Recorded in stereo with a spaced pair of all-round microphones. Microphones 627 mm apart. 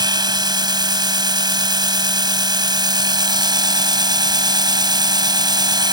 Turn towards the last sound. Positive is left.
turn(degrees=-5)  # may be behind; listen again after turning